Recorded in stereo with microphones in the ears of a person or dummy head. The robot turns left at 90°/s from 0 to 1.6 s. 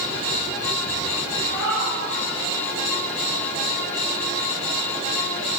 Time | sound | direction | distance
1.5 | a cat meowing | 10° right (ahead or behind) | 4 m